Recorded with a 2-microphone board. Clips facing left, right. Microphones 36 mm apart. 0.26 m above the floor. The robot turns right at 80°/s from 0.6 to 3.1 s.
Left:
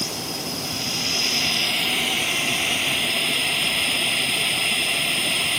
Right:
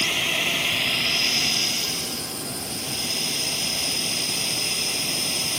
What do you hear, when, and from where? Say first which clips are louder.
0.0 s a drone: right 7 dB; 60° right; by 5.6 s 140° left